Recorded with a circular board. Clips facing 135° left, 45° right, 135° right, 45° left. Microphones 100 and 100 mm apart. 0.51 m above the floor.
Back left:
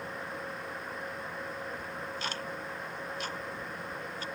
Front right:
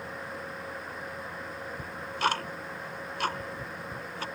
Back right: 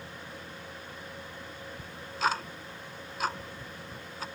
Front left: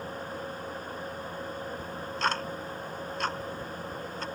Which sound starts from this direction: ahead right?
Ticking, at 1.8 s.